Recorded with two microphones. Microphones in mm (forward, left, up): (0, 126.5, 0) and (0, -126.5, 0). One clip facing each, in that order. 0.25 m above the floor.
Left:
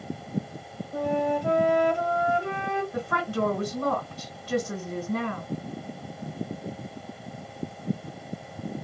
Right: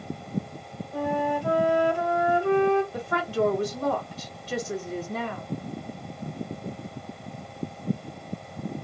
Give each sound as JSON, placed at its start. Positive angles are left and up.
{"t": 0.9, "sound": "a flute", "side_deg": 20, "distance_m": 1.0}
{"t": 2.9, "sound": "a woman speaking", "side_deg": 55, "distance_m": 2.5}